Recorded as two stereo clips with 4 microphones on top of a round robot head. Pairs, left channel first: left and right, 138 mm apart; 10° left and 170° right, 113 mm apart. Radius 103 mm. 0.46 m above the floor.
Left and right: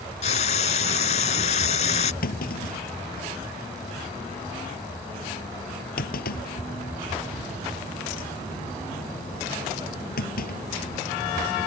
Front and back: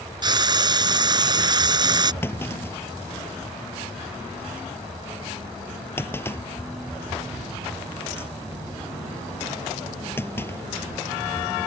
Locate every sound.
0.2 s frying: 140° left
2.2 s a clunk: 80° left